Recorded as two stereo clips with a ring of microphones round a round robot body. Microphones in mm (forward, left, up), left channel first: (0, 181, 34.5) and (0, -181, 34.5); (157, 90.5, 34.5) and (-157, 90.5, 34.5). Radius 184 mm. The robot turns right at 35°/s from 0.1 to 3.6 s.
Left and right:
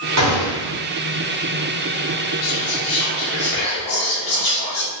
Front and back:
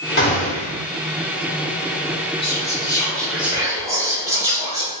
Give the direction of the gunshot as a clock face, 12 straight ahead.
2 o'clock.